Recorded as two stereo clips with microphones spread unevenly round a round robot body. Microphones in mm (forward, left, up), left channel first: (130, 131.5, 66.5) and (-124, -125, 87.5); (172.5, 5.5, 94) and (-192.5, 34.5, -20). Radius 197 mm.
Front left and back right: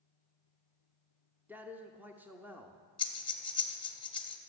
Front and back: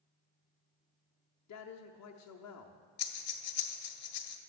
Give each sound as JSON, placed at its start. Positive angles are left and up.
{"t": 1.5, "sound": "a man speaking", "azimuth_deg": -50, "distance_m": 0.8}
{"t": 3.0, "sound": "breathing", "azimuth_deg": -25, "distance_m": 1.2}